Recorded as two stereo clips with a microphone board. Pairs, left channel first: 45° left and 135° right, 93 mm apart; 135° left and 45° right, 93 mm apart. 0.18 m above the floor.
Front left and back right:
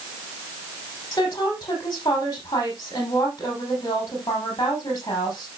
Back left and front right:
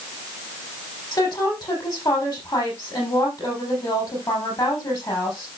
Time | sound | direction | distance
1.1 | a woman speaking | 95° left | 7 m